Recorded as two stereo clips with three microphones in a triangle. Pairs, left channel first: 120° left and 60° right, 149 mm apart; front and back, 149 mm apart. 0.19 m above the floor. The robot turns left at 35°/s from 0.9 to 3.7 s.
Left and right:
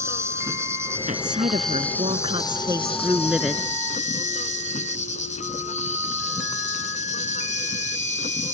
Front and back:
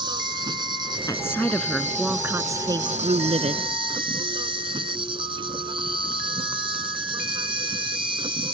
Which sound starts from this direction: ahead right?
A woman speaking, at 1.1 s.